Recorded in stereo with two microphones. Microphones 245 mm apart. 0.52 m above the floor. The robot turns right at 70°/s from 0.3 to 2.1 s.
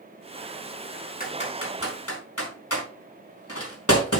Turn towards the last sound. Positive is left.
turn(degrees=75)  # may be behind; listen again after turning